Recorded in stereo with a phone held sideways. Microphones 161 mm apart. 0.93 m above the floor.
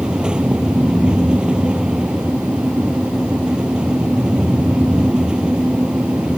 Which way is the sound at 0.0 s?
5° right (ahead or behind).